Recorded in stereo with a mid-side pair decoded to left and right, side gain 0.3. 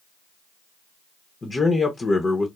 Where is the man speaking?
45° left, 0.7 m.